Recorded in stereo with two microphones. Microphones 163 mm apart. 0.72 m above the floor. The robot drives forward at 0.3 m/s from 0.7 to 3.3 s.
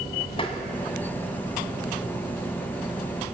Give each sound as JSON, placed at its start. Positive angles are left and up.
{"t": 0.4, "sound": "tapping", "side_deg": 35, "distance_m": 2.0}